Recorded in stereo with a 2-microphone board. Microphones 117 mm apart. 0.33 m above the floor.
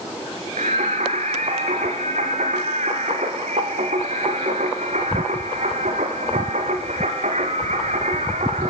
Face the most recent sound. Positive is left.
turn(degrees=-80)